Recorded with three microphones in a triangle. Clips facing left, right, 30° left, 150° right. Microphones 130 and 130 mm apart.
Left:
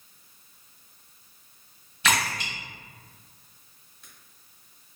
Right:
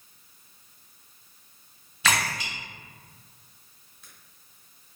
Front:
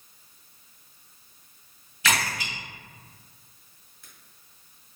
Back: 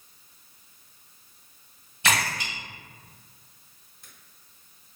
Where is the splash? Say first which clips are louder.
Even, back 1 dB; 165° right, 1.4 m.